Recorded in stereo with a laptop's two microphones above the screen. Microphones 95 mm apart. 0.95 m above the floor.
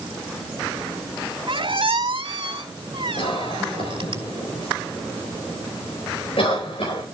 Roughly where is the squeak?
Right.